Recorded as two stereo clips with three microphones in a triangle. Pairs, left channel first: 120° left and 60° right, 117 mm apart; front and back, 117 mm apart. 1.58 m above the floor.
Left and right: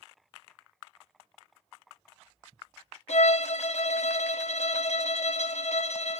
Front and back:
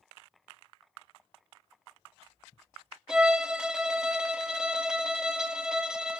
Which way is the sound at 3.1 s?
95° left.